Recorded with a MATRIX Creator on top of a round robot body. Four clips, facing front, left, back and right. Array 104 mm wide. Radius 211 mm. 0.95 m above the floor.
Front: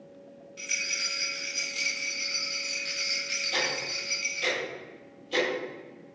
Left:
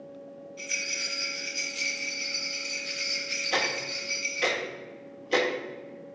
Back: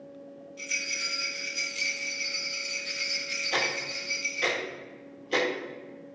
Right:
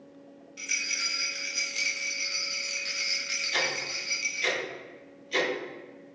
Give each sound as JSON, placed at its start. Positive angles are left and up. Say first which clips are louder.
{"t": 0.6, "sound": "a rattle", "louder": "right 2 dB, even", "azimuth_deg": -55, "distance_m": 1.1}
{"t": 3.5, "sound": "ticking", "louder": "left 3 dB, back 1 dB", "azimuth_deg": 120, "distance_m": 1.3}